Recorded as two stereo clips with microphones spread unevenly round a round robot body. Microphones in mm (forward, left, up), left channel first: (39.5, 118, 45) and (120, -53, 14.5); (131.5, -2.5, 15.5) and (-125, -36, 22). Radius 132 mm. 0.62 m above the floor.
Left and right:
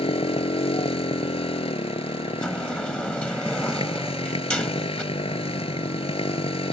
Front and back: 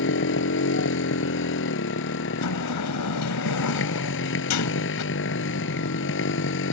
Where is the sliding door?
30° left.